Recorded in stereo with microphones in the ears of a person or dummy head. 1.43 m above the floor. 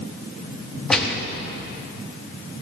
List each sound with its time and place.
0.9 s a gunshot: centre (ahead or behind), 1.3 m